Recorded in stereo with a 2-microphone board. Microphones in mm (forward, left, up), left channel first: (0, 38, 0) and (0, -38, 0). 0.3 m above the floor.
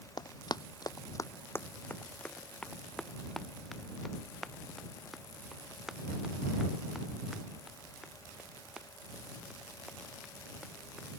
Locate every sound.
0.2 s running footsteps: 65° left (ahead or behind); by 11.2 s 10° right (ahead or behind)